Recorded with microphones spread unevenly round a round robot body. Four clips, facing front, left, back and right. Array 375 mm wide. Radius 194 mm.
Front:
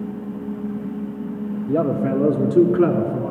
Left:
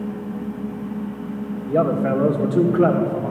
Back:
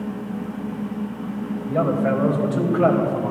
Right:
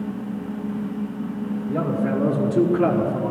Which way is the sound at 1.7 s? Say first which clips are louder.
Left 5 dB, even; 30° left.